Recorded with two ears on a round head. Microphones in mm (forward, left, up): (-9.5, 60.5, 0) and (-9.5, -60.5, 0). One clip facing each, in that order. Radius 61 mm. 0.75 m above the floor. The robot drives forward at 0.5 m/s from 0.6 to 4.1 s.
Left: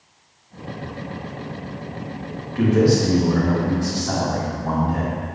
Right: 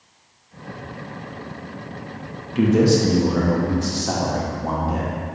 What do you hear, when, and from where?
2.5 s a man speaking: 25° right (ahead or behind), 1.2 m; by 5.2 s 20° right (ahead or behind), 1.4 m